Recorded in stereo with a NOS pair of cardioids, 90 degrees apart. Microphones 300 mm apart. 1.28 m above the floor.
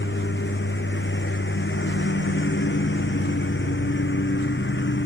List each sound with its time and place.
0.0 s a lawn mower: 35° left